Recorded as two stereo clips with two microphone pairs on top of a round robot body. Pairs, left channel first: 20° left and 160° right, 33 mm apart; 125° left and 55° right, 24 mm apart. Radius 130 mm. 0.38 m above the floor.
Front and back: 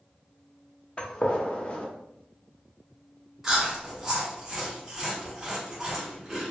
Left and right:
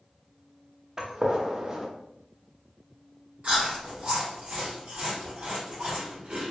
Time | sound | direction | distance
1.0 | a gunshot | straight ahead | 0.8 m
3.4 | chewing | 85° right | 0.9 m